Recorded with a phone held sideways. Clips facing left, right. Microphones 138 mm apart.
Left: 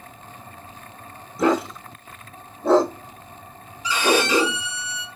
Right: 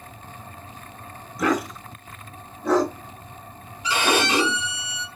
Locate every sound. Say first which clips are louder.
1.4 s a dog barking: left 3 dB; 25° left (ahead or behind), 0.9 m
3.8 s a violin: left 2 dB; 65° right (ahead or behind), 1.5 m